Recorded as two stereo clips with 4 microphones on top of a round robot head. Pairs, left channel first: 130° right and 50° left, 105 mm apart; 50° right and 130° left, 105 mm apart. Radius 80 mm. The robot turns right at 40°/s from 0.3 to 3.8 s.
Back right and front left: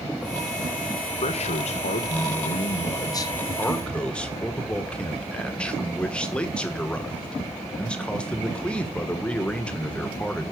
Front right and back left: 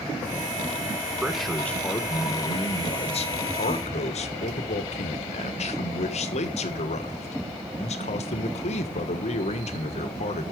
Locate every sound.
1.2 s a man speaking: 150° right, 1.4 m; by 10.5 s 45° right, 1.4 m